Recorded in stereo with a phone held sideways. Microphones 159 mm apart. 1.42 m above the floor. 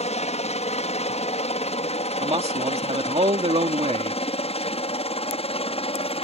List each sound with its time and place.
0.0 s a helicopter: 40° left (ahead or behind); by 6.2 s 35° left (ahead or behind)
2.2 s a man speaking: 40° right (ahead or behind)